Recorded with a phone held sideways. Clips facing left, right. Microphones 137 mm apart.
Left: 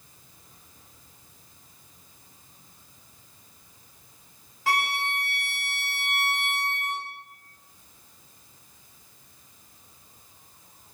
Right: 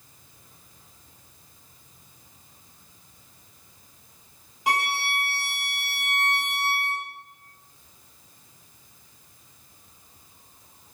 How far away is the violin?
About 0.6 m.